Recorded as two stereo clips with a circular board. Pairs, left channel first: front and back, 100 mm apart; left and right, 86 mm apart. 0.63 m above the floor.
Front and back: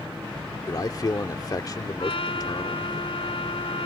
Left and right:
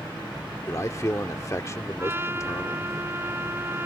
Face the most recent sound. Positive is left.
turn(degrees=-25)